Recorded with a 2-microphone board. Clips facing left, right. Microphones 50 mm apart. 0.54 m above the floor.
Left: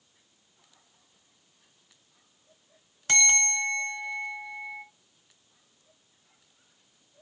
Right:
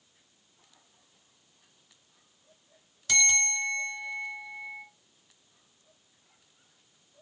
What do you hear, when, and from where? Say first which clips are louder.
3.1 s a bell: left 2 dB; 45° left (ahead or behind), 0.9 m